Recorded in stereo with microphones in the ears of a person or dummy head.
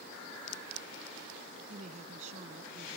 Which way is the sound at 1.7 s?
50° right (ahead or behind).